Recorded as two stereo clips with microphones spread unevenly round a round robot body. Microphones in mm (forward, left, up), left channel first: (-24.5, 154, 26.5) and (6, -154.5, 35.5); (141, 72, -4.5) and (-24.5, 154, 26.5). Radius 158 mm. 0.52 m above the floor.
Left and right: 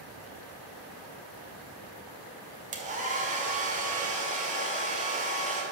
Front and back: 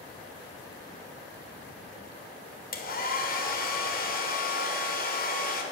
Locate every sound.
2.7 s a hair dryer: 20° right, 1.7 m